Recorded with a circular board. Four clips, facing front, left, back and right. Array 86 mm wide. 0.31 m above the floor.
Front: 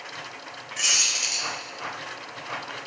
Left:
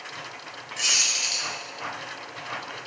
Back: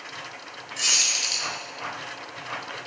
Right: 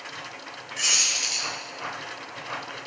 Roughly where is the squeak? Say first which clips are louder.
Even, even; ahead.